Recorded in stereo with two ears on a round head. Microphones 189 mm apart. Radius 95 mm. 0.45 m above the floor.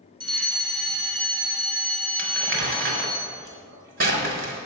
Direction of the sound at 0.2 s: 25° right (ahead or behind).